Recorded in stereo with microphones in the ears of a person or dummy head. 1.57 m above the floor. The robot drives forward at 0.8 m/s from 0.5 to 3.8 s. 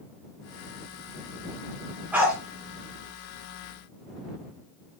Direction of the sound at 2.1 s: 10° right (ahead or behind).